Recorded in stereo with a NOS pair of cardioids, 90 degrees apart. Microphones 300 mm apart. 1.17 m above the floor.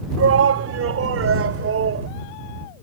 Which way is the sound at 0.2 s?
55° right.